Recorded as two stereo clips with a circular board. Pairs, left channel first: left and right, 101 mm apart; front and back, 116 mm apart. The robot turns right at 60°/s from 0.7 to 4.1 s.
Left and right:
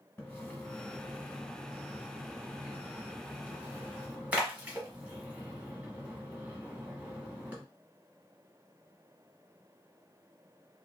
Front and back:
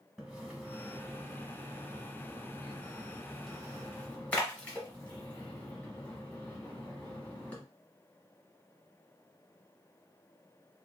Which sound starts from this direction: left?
A splash, at 0.2 s.